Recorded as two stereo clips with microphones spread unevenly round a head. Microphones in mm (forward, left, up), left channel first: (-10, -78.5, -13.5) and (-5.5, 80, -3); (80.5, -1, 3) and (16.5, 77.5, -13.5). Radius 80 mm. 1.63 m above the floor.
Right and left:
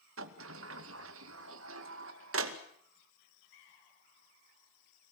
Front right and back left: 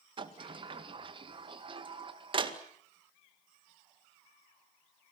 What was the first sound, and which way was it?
A sliding door, 90° left.